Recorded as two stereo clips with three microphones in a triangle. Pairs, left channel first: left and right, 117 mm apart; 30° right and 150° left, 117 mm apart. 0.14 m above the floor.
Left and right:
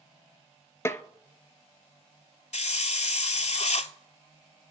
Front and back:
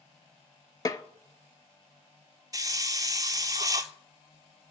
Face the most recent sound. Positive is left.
turn(degrees=95)